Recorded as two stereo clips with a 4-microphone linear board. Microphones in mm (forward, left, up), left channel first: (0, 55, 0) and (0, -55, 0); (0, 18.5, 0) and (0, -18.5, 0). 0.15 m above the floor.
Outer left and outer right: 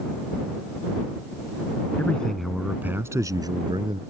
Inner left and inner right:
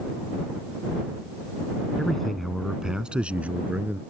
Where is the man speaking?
15° left (ahead or behind); by 4.0 s 50° right (ahead or behind).